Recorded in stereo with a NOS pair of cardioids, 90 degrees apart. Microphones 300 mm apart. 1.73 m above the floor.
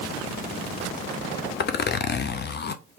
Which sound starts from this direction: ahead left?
A zipper, at 1.6 s.